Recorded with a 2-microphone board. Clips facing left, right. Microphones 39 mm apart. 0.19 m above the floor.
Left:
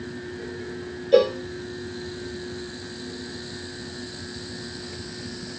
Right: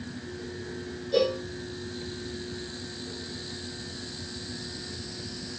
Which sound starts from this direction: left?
A cowbell, at 1.1 s.